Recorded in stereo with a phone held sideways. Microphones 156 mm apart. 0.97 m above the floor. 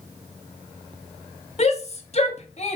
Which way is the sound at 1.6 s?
45° left (ahead or behind).